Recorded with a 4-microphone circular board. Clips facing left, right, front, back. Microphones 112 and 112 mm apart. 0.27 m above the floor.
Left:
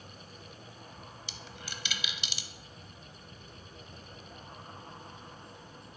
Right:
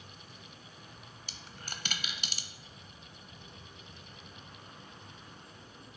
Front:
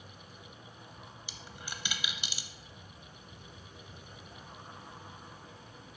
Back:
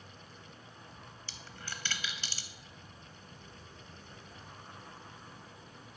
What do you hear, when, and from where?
1.3 s a dropped coin: 70° right, 0.5 m